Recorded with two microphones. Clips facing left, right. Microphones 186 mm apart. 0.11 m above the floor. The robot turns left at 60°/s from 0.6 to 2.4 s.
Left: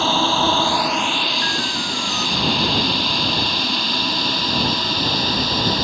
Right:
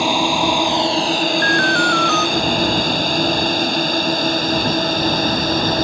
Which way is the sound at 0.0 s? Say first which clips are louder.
Right 2 dB; 15° right (ahead or behind).